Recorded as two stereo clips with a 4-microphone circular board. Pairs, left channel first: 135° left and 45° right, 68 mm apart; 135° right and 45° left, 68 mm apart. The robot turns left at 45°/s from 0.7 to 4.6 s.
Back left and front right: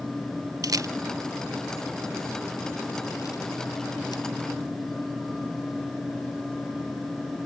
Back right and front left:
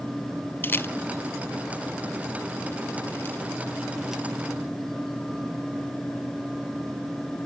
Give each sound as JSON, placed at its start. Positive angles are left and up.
{"t": 0.6, "sound": "a camera shutter", "azimuth_deg": -75, "distance_m": 0.5}